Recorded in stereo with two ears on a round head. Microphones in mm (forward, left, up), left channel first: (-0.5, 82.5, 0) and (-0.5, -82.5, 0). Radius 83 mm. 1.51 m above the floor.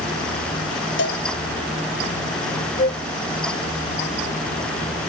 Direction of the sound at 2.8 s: 45° left (ahead or behind).